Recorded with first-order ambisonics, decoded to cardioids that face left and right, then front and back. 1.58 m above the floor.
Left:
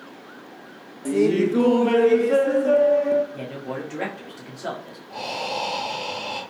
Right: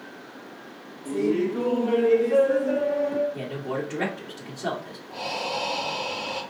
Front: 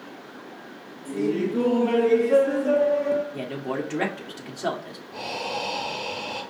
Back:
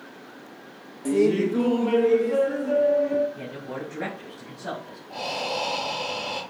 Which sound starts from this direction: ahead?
A man speaking, at 3.3 s.